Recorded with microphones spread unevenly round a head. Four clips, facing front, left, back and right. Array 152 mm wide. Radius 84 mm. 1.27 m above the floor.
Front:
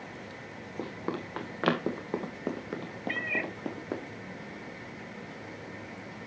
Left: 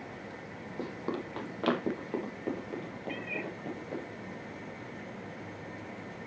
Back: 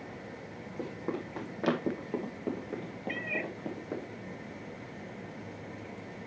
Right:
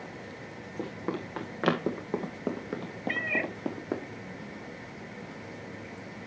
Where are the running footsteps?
15° left, 2.5 m; by 4.0 s 30° right, 3 m.